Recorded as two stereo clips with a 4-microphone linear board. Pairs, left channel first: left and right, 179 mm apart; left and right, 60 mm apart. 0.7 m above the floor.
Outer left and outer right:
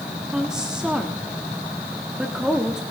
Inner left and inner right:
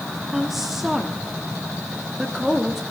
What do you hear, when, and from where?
0.3 s a woman speaking: 5° right (ahead or behind), 1.4 m